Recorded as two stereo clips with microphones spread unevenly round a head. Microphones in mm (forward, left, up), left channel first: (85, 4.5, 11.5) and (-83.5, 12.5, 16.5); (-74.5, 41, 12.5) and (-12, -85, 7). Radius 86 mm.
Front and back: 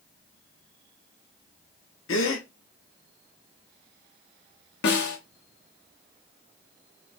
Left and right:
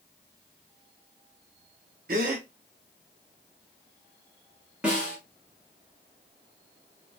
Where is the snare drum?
20° left, 1.0 m.